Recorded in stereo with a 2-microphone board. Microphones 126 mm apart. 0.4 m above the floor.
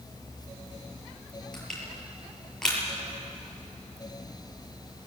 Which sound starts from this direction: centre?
Crushing, at 1.5 s.